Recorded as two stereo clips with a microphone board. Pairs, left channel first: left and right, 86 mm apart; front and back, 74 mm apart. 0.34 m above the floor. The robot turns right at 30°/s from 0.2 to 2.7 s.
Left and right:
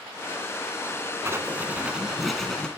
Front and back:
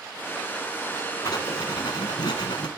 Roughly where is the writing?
Ahead right.